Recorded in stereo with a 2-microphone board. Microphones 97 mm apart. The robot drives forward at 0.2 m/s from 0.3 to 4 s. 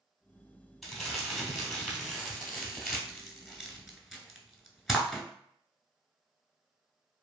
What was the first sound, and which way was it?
Crumpling, centre (ahead or behind).